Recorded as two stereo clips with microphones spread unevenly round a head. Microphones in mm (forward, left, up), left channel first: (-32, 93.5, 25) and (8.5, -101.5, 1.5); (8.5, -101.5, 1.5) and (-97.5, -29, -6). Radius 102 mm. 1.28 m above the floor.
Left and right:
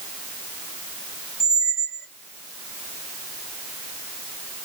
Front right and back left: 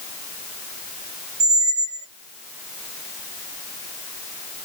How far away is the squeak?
About 0.6 m.